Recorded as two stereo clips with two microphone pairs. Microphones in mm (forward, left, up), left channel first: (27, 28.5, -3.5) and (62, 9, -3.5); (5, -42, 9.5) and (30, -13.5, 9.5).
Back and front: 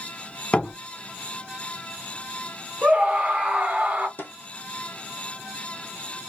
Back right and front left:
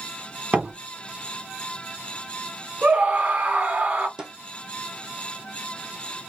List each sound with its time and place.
0.5 s a door slam: 90° left, 1.1 m
2.8 s a scream: 15° left, 1.3 m
4.2 s a snare drum: 120° left, 1.5 m